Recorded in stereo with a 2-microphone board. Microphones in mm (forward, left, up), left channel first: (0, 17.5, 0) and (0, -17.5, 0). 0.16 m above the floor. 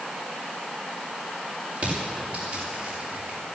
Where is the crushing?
45° right (ahead or behind), 6.5 m.